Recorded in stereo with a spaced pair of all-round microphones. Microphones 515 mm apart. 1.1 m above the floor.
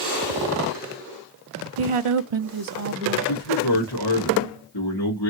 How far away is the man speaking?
About 1.8 m.